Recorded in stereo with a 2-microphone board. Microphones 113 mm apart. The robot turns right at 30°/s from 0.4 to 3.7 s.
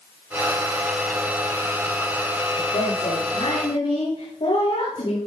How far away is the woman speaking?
About 6.5 m.